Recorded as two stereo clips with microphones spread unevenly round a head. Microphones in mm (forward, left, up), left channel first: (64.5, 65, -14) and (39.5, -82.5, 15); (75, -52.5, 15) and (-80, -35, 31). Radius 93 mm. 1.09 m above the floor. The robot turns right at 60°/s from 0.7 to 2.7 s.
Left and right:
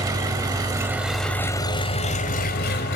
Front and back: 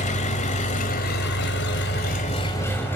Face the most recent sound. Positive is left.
turn(degrees=75)